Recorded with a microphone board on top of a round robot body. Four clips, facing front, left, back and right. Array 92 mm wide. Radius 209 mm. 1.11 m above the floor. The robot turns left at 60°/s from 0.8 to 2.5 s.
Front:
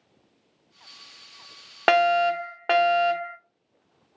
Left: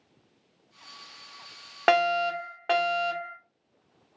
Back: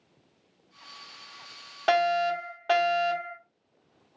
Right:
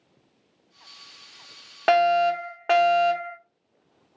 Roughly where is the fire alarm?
Ahead.